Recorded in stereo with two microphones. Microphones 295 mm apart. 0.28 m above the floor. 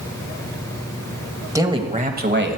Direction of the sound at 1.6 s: 10° right (ahead or behind).